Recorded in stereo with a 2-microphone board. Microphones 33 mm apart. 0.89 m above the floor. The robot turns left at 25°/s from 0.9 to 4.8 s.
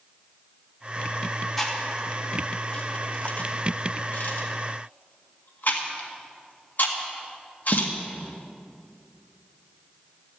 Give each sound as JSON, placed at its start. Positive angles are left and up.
{"t": 1.6, "sound": "chewing", "side_deg": 5, "distance_m": 1.7}